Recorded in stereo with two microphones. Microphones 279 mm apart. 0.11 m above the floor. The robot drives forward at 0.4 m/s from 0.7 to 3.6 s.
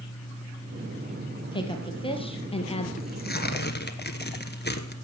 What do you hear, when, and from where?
1.5 s a woman speaking: 15° left (ahead or behind), 2.5 m; by 2.9 s 20° left (ahead or behind), 2 m
3.0 s tearing paper: 35° left (ahead or behind), 1.4 m